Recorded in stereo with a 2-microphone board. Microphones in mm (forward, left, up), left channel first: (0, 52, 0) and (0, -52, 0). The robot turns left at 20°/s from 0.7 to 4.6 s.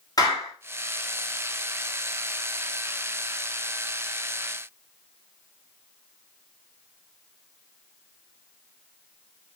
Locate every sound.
0.2 s a clap: 35° left (ahead or behind), 2.5 m